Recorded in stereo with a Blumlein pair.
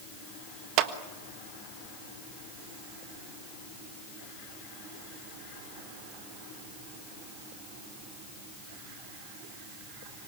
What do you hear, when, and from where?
0.8 s a clap: 40° right, 1.5 m